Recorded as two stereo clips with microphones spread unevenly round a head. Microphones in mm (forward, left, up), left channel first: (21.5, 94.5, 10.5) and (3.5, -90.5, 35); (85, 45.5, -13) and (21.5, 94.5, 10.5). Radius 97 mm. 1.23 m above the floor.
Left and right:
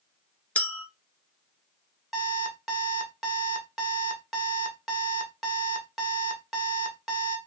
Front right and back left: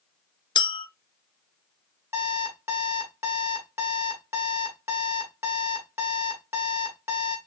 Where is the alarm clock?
Straight behind, 1.1 m.